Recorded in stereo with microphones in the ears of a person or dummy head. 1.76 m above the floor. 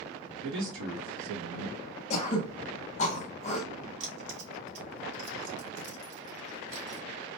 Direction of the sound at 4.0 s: 65° right (ahead or behind).